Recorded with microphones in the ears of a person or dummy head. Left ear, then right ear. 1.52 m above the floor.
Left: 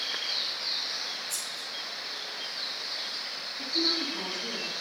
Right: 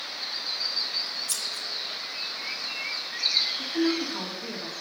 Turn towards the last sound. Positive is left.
turn(degrees=-90)